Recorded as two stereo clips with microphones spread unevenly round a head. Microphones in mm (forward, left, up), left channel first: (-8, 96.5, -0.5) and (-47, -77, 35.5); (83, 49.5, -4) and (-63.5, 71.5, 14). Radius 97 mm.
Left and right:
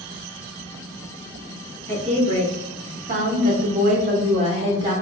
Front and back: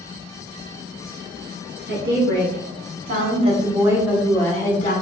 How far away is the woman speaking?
About 1.6 m.